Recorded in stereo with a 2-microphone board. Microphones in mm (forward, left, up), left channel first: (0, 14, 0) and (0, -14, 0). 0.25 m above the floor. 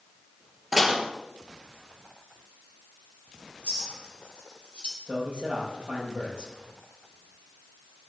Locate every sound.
0.7 s dishes clattering: 10° right (ahead or behind), 3 m
3.6 s a clink: 40° left (ahead or behind), 5 m
5.1 s a man speaking: 50° right (ahead or behind), 8.5 m